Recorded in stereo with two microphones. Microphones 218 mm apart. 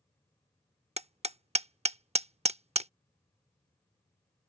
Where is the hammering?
30° right (ahead or behind).